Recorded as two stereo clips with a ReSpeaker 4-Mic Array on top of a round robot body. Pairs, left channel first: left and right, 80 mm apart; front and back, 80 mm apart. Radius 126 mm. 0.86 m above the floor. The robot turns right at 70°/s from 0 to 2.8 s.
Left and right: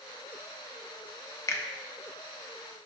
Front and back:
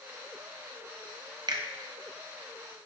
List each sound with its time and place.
1.5 s a finger snap: 145° left, 0.8 m; by 1.6 s 155° left, 0.8 m